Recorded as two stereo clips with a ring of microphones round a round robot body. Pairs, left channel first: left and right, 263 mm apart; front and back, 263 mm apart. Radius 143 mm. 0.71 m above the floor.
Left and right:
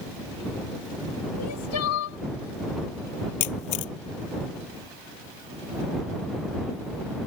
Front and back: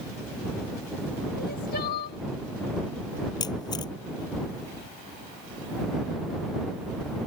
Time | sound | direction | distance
1.4 | crying | 60° left | ?
3.4 | a camera shutter | 75° left | ?